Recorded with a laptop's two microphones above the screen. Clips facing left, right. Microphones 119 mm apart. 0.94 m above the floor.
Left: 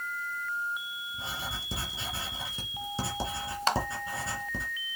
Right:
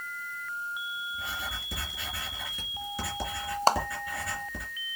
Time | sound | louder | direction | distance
1.1 | writing | right 1 dB | 25° left (ahead or behind) | 2.5 m
3.7 | a clap | right 5 dB | 35° right (ahead or behind) | 0.8 m